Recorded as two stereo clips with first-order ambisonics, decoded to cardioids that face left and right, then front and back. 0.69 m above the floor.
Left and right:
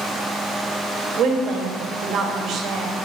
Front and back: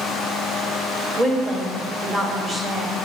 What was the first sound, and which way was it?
A woman speaking, 110° right.